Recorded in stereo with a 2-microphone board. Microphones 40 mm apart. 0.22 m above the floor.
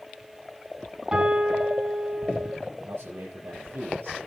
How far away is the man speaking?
About 6.5 m.